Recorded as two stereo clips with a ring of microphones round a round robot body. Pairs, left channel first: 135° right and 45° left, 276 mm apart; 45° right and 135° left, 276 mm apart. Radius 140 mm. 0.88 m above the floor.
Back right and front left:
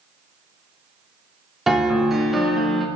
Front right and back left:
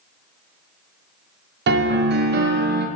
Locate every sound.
1.7 s a piano: 135° left, 0.6 m